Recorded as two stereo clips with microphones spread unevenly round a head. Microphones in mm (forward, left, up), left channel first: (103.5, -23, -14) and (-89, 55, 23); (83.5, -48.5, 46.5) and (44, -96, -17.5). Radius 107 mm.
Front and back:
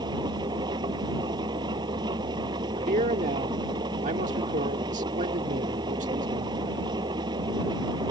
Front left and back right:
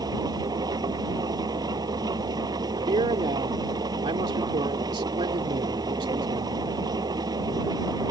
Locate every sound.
0.0 s an engine running: 130° right
2.8 s a man speaking: 145° right